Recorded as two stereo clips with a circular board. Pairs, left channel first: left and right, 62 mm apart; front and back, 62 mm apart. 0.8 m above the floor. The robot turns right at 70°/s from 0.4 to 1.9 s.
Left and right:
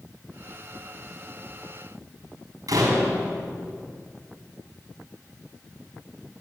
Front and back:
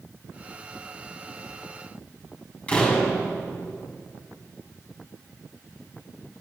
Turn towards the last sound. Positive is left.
turn(degrees=-70)